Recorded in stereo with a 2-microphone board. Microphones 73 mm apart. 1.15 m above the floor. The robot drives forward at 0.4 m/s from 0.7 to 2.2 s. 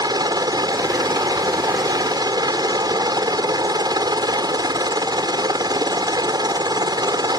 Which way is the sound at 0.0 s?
65° right (ahead or behind).